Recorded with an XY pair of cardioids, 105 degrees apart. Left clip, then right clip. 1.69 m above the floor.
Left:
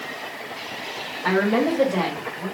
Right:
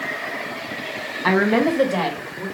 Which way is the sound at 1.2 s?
35° right.